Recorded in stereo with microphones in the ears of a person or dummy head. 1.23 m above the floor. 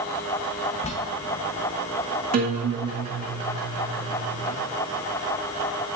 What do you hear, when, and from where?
0.8 s a bell: 30° left (ahead or behind), 0.8 m
2.3 s a guitar: 45° right (ahead or behind), 1.7 m